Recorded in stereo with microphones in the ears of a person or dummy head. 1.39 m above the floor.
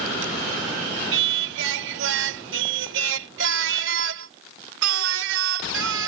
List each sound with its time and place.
1.1 s singing: 75° right (ahead or behind)